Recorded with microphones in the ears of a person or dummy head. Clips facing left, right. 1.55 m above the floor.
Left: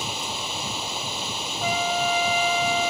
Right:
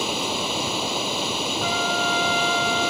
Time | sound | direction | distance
0.0 | running water | 60° right (ahead or behind) | ?
1.6 | a trumpet | 10° left (ahead or behind) | ?